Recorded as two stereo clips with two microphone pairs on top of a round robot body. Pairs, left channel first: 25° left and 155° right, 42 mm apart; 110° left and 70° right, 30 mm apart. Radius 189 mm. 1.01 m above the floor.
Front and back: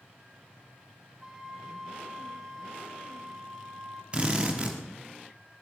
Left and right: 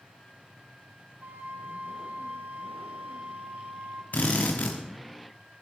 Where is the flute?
80° right, 1.1 m.